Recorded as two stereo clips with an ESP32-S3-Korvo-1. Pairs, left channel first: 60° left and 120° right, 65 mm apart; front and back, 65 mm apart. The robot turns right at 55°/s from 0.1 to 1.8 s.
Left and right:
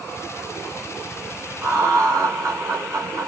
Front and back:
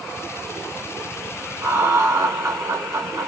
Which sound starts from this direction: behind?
Laughter, at 1.6 s.